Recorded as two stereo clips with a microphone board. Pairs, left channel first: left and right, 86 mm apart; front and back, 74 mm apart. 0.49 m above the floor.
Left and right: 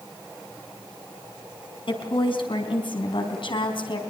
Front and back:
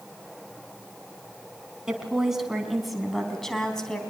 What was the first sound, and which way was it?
A woman speaking, 100° left.